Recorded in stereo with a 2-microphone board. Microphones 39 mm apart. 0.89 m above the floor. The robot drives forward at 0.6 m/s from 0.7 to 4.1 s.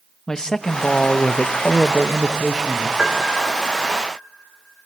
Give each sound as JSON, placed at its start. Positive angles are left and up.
{"t": 0.3, "sound": "a man speaking", "side_deg": 20, "distance_m": 0.7}
{"t": 3.0, "sound": "a piano", "side_deg": -40, "distance_m": 1.8}